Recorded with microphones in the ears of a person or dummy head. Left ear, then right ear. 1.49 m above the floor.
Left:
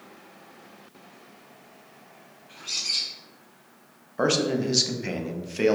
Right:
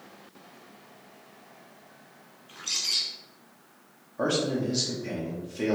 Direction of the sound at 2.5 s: 40° right (ahead or behind).